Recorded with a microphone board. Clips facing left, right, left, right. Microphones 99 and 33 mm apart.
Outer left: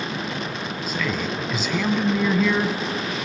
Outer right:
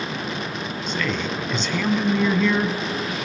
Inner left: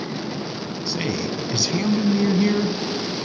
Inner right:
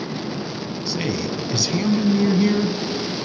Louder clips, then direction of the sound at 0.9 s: Outer right 1 dB, inner right 1 dB; 5° left (ahead or behind).